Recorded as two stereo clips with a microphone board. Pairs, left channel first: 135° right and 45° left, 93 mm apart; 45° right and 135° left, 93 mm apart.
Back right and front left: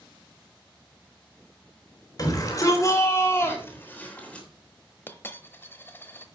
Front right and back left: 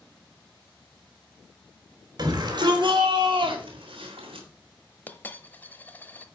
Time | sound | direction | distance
2.2 | a shout | straight behind | 3 m
5.1 | a dropped coin | 95° right | 1.0 m